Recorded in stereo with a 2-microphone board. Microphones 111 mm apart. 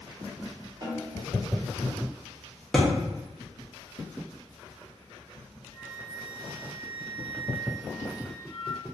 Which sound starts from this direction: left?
A flute, at 5.7 s.